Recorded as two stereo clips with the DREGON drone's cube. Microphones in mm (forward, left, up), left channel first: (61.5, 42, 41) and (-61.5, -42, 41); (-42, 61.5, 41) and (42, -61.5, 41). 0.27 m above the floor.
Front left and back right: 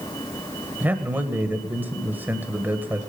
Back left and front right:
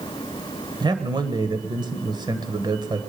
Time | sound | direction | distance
0.8 | a man speaking | 80° right | 1.3 m